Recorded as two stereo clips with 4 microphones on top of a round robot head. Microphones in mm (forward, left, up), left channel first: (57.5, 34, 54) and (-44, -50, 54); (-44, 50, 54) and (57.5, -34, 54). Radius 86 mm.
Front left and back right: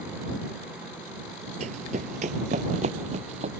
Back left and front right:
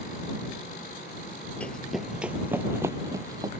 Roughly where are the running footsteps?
Behind right.